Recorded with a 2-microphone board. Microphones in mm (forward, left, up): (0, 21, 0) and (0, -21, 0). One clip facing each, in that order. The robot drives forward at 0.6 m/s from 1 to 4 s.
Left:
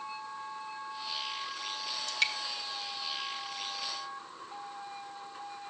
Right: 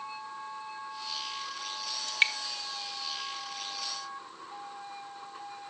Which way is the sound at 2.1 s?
35° right (ahead or behind).